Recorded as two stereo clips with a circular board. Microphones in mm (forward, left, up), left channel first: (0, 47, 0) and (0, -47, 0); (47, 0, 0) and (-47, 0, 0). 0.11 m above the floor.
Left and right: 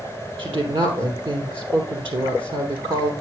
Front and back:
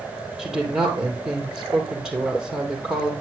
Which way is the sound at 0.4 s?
95° right.